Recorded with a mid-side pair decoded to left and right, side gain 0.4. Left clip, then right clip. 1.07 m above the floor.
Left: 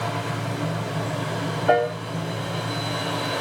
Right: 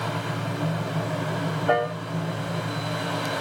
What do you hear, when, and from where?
0.0 s a fan: 5° left, 2.5 m
1.7 s a piano: 40° left, 2.5 m